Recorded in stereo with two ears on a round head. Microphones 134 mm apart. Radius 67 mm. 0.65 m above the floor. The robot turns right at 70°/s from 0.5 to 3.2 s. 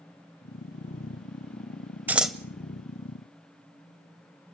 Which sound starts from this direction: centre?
Scissors, at 2.1 s.